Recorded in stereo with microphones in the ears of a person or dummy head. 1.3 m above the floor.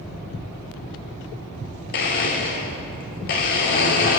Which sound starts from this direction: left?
A blender, at 1.9 s.